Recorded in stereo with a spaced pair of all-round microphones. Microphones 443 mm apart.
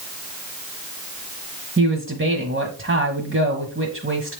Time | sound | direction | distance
1.8 | a man speaking | 25° right (ahead or behind) | 1.1 m